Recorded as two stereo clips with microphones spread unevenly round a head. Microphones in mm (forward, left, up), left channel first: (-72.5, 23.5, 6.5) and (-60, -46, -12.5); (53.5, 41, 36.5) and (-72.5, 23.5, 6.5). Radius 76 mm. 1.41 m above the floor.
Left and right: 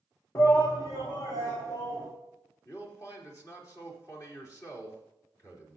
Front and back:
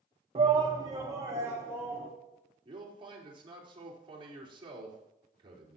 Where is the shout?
145° left, 0.9 m; by 2.1 s 115° left, 3.5 m.